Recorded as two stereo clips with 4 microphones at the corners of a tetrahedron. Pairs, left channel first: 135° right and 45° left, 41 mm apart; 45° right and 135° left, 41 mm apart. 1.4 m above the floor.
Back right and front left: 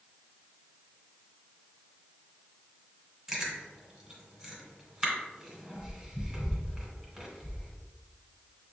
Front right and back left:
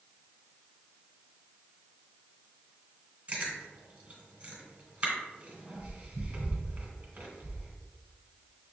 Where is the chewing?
105° left, 1.3 m.